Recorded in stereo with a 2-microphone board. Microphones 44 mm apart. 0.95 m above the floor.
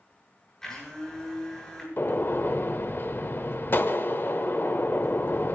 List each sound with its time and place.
0.6 s a blender: 10° left (ahead or behind), 6.5 m
2.0 s a gunshot: 50° left (ahead or behind), 0.9 m